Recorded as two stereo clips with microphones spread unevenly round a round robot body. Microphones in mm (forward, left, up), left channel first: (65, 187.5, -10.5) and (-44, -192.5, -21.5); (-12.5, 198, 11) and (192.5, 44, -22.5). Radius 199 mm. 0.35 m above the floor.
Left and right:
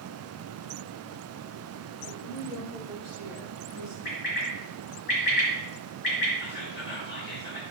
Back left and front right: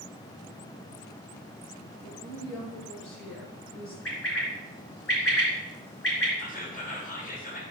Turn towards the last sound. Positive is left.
turn(degrees=110)